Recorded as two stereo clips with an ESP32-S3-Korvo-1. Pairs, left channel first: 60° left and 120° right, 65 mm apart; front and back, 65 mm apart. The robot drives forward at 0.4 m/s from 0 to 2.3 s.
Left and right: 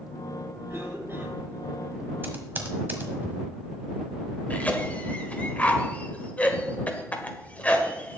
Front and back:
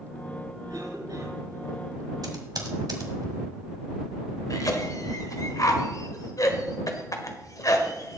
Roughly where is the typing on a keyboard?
Behind.